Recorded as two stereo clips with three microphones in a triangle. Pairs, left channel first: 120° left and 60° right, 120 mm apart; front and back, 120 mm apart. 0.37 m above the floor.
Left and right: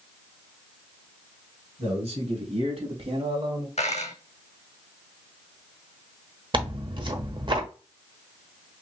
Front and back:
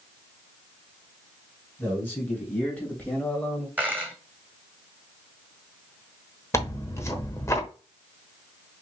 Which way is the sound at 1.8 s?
75° right.